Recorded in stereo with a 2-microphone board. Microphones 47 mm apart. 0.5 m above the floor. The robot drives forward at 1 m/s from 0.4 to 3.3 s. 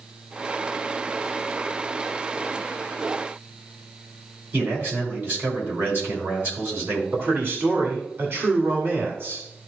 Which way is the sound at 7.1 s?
45° right (ahead or behind).